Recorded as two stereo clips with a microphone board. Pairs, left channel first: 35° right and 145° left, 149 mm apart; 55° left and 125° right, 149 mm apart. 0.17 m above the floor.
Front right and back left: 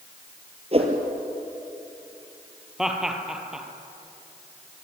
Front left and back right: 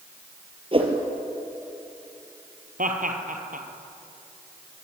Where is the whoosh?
170° right, 3.5 m.